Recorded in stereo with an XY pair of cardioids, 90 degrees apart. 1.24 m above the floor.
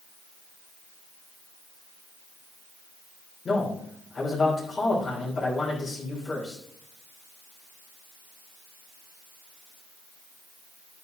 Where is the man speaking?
45° left, 3.5 m.